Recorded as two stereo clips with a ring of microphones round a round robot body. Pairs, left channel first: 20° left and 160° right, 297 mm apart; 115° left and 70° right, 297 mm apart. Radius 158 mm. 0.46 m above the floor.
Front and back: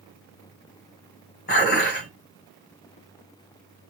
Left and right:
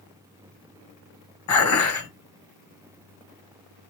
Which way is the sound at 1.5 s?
80° left.